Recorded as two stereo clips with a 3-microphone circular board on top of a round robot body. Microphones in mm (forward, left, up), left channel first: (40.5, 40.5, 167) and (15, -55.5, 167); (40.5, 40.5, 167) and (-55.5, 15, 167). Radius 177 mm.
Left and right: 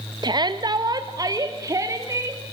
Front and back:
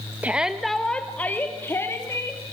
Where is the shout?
100° right, 1.3 m; by 2.4 s 45° right, 3 m.